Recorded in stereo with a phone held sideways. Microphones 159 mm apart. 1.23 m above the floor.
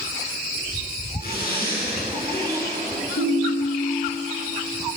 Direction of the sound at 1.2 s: 70° left (ahead or behind).